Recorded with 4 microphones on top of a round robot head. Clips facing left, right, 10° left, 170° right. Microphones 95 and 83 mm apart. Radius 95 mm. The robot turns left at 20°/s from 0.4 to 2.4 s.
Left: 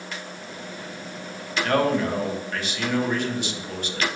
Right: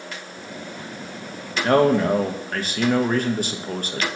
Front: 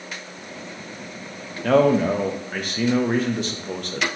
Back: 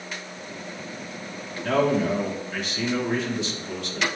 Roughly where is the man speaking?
Ahead right.